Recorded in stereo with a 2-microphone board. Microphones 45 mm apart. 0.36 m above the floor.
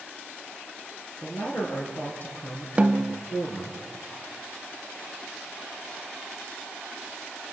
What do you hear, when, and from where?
1.2 s a man speaking: 40° left (ahead or behind), 6.5 m; by 3.8 s 65° left (ahead or behind), 6.5 m
2.8 s a snare drum: 25° right (ahead or behind), 0.6 m